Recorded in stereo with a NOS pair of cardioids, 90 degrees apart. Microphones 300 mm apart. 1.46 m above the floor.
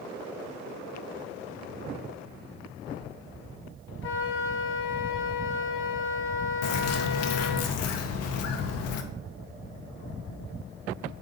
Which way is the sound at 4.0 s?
50° left.